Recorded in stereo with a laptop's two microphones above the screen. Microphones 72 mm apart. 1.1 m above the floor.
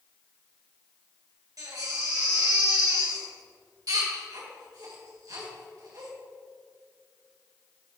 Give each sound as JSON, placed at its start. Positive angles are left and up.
{"t": 1.6, "sound": "a baby crying", "side_deg": -55, "distance_m": 2.0}